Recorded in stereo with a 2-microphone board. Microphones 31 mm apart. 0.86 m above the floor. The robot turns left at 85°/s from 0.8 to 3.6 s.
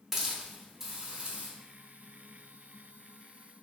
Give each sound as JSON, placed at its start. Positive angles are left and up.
{"t": 0.1, "sound": "a hiss", "azimuth_deg": -15, "distance_m": 0.6}